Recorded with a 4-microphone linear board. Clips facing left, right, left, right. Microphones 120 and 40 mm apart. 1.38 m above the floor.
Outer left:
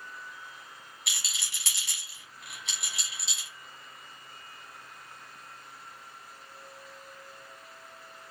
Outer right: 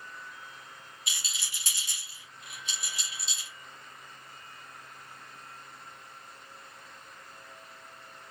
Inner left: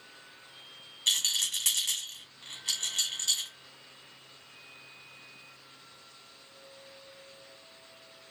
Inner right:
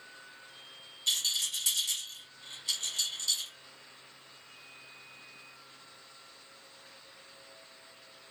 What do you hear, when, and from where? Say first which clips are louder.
1.1 s a rattle: even, inner left 3 dB; 65° left (ahead or behind), 1.3 m